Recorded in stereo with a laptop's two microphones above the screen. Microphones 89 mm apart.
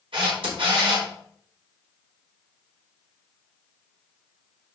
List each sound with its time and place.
0.1 s a camera shutter: 75° right (ahead or behind), 4.5 m